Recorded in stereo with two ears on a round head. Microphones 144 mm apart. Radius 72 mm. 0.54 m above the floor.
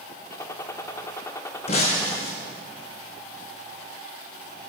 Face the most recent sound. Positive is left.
turn(degrees=40)  # may be behind; listen again after turning